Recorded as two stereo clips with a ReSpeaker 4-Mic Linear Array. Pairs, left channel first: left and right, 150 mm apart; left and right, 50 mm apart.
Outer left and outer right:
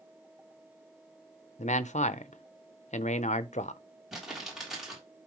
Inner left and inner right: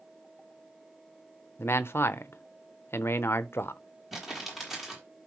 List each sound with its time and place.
1.6 s a man speaking: 50° left (ahead or behind), 0.7 m
4.1 s crumpling: 5° right (ahead or behind), 3.5 m